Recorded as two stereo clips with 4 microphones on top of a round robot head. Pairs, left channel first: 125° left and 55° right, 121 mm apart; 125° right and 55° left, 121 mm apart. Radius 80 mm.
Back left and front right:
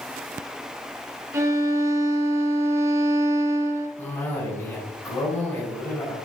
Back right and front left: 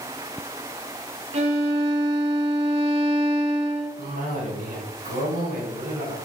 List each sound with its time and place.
1.3 s a violin: 15° left, 1.8 m
4.0 s a cough: 50° left, 6.5 m